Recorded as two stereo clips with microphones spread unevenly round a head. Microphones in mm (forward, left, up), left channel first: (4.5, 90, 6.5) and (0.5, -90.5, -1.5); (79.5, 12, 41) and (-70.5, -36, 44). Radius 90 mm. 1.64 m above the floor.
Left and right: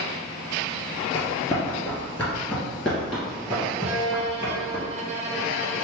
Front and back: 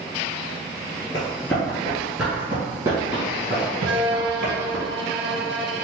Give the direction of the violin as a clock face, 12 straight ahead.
5 o'clock.